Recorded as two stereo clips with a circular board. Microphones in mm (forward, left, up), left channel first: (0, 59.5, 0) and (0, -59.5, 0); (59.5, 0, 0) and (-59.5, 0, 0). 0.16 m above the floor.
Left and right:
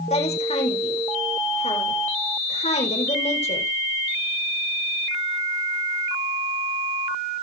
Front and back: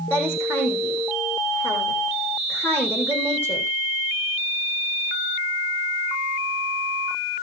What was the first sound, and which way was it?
A woman speaking, 75° left.